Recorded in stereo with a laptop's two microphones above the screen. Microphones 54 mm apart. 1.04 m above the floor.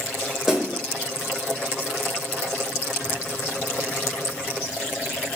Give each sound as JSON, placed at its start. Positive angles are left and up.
{"t": 0.5, "sound": "a snare drum", "side_deg": -5, "distance_m": 1.5}